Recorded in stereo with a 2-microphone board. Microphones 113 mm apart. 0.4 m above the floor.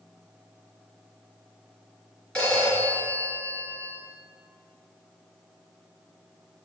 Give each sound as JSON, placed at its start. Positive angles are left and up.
{"t": 2.4, "sound": "a phone ringing", "side_deg": 10, "distance_m": 3.0}